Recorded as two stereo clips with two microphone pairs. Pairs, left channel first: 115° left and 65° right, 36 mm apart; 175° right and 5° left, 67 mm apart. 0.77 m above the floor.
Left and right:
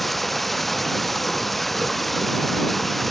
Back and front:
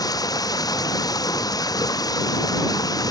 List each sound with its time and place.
0.0 s running water: 155° right